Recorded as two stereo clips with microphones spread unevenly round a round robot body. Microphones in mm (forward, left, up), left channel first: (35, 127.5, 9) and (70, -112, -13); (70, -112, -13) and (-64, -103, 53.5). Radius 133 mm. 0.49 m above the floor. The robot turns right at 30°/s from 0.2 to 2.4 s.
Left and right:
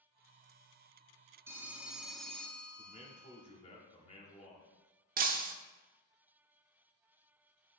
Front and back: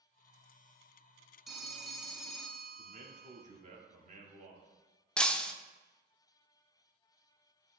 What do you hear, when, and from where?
1.5 s a phone ringing: 20° right, 0.6 m; by 3.5 s 5° left, 0.6 m
2.8 s a man speaking: 150° left, 1.0 m
5.2 s breaking glass: 50° right, 0.5 m